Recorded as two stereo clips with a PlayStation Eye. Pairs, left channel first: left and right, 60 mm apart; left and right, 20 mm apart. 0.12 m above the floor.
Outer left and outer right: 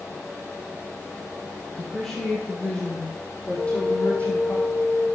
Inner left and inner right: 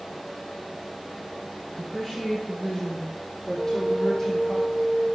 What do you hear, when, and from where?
1.8 s a woman speaking: 5° left (ahead or behind), 4 m; by 4.6 s 25° left (ahead or behind), 6 m
3.6 s a flute: 25° left (ahead or behind), 4.5 m